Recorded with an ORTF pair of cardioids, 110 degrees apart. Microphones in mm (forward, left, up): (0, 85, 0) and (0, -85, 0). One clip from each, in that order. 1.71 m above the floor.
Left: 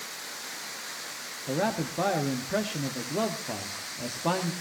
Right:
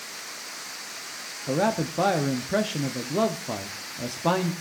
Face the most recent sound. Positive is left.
turn(degrees=-20)